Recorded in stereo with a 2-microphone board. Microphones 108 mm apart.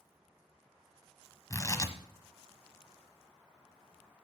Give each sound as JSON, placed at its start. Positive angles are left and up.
{"t": 1.5, "sound": "tearing paper", "side_deg": 30, "distance_m": 1.2}